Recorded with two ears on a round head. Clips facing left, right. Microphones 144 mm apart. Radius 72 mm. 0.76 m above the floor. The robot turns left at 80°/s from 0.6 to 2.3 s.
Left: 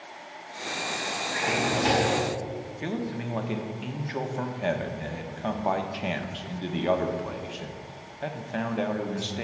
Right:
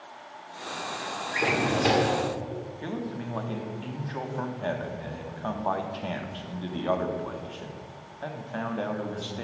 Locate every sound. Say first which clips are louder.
1.3 s a drawer: right 2 dB; 90° right, 1.2 m; by 2.2 s 160° right, 1.2 m
2.8 s a man speaking: left 4 dB; 20° left (ahead or behind), 0.9 m